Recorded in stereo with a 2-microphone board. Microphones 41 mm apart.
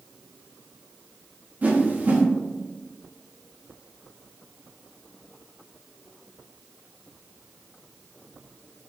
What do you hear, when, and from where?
1.6 s a whoosh: 40° right (ahead or behind), 0.8 m